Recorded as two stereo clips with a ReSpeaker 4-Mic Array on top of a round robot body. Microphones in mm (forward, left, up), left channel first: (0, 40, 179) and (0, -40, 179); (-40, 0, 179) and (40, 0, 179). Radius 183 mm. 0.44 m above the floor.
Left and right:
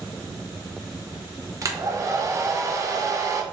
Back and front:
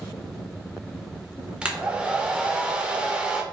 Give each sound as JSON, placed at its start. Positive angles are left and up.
{"t": 1.6, "sound": "a hair dryer", "azimuth_deg": -70, "distance_m": 0.6}